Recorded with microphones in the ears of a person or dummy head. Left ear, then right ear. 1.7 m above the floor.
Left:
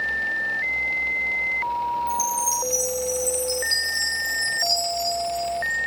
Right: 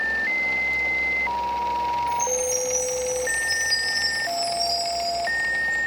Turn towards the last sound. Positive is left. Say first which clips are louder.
# even
turn(degrees=40)  # may be behind; listen again after turning